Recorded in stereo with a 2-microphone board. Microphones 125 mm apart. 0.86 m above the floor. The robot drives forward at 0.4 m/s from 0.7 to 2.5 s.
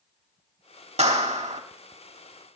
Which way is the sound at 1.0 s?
60° right (ahead or behind).